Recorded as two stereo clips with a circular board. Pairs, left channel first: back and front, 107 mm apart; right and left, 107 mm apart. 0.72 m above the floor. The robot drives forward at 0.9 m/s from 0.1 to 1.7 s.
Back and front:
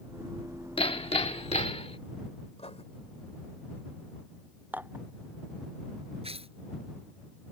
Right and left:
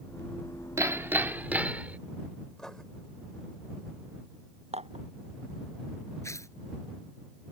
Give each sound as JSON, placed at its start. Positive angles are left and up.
{"t": 0.8, "sound": "hammering", "azimuth_deg": 150}
{"t": 2.6, "sound": "writing", "azimuth_deg": -175}
{"t": 4.7, "sound": "dishes clattering", "azimuth_deg": 75}
{"t": 6.2, "sound": "tearing paper", "azimuth_deg": -25}